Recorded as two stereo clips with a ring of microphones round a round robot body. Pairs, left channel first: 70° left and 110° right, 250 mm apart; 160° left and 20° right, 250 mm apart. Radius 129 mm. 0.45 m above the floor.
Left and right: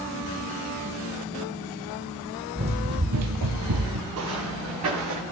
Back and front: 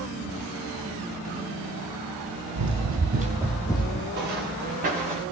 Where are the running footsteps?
40° right, 1.5 m; by 4.0 s 140° right, 1.5 m.